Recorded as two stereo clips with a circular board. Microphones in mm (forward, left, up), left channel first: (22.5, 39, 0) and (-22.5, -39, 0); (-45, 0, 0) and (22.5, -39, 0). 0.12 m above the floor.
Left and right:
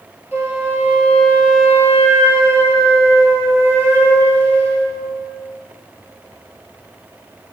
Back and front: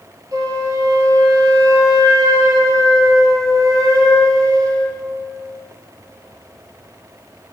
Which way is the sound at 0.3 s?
60° right.